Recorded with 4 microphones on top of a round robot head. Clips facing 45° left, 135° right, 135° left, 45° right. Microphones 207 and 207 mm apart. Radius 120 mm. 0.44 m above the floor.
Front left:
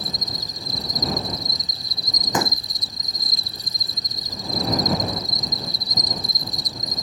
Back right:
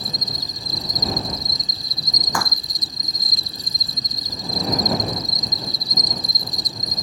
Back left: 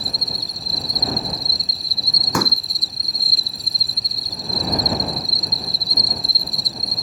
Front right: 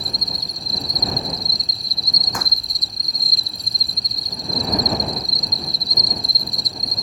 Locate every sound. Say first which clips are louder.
0.0 s an insect: back right 1 dB, even; 135° right
2.3 s a pop: front left 4 dB, back left 11 dB; 115° left